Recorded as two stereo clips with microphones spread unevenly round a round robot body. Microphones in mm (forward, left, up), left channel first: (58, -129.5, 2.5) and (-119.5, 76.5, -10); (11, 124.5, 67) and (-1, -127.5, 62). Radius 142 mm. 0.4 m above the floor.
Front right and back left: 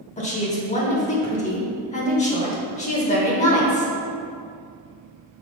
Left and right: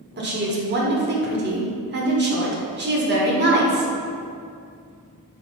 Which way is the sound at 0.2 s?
105° right.